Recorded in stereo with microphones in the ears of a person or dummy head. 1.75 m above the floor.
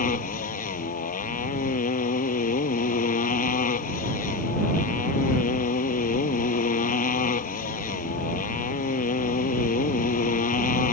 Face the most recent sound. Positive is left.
turn(degrees=45)  # may be behind; listen again after turning